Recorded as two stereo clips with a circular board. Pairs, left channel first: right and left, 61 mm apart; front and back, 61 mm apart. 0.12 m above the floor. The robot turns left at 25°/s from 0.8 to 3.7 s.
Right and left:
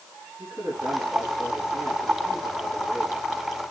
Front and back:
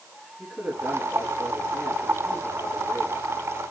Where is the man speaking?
90° left, 10 m; by 3.2 s 30° left, 10 m.